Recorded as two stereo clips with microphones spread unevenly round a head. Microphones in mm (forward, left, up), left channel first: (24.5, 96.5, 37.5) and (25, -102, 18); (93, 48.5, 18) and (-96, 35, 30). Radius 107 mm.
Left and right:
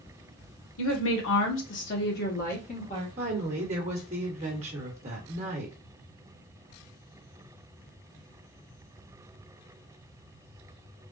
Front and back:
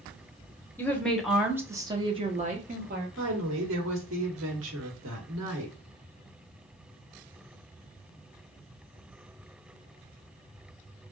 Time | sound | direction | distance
0.8 | a woman speaking | 80° left | 1.0 m
3.2 | a woman speaking | 150° right | 1.2 m